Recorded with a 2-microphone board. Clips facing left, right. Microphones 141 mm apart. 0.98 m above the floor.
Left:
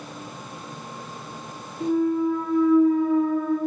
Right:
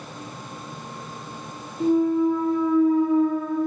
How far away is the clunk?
About 1.3 m.